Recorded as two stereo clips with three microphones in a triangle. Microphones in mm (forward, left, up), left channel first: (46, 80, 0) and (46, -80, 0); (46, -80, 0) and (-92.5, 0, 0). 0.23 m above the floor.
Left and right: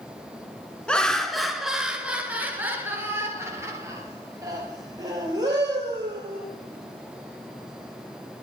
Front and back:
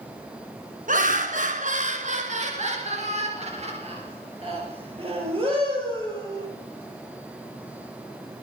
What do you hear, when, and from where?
0.9 s laughter: 175° left, 2 m; by 6.5 s 155° right, 5 m